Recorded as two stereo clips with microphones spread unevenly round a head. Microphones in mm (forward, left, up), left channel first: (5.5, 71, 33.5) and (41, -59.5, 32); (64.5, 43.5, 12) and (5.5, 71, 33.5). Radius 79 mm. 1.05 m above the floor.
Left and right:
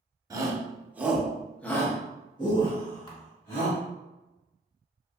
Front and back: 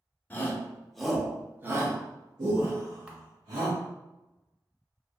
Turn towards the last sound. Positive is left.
turn(degrees=70)